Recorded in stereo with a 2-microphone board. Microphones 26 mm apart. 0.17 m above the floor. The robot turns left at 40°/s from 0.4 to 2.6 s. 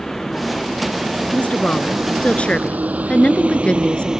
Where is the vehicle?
15° left (ahead or behind); by 4.2 s 20° right (ahead or behind).